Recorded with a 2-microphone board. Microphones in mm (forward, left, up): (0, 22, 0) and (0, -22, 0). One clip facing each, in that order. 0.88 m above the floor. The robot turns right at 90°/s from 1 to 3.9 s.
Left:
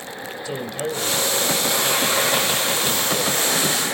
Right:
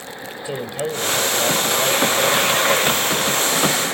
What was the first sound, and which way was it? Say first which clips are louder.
A man speaking: right 2 dB; 160° right.